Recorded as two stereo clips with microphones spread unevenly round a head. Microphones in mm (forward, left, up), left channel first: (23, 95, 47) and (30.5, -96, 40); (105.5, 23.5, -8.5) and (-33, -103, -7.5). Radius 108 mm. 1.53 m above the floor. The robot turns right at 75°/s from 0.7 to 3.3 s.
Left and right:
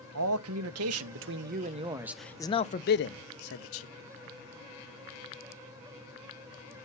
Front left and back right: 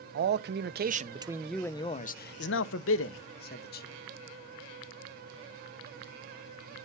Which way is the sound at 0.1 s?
110° right.